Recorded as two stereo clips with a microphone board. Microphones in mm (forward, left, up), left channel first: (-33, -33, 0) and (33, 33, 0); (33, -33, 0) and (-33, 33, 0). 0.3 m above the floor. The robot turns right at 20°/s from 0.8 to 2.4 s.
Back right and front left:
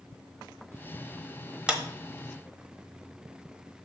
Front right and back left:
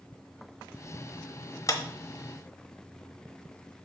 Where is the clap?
30° right, 1.1 m; by 1.8 s 25° right, 1.1 m.